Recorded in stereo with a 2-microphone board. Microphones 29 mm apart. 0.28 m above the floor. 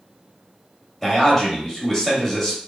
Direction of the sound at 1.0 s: 15° left (ahead or behind).